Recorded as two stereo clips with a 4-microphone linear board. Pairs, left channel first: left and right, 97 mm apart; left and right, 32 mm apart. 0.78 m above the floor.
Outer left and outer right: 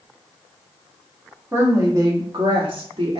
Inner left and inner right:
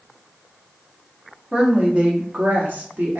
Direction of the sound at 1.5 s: 25° right (ahead or behind).